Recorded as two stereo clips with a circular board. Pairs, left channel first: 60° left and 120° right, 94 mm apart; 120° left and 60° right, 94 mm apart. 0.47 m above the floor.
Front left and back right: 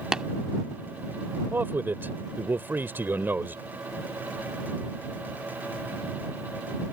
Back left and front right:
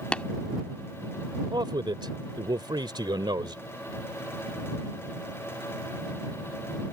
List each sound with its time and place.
0.1 s tapping: 175° left
1.5 s a man speaking: 60° right